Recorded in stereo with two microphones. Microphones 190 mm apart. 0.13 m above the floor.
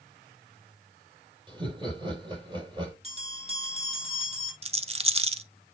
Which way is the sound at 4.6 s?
30° right (ahead or behind).